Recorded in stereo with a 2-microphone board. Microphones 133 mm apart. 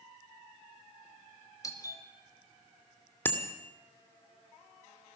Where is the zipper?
No zipper in this recording.